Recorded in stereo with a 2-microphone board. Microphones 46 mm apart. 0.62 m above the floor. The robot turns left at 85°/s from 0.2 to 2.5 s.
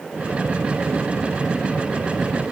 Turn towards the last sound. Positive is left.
No sound to turn to.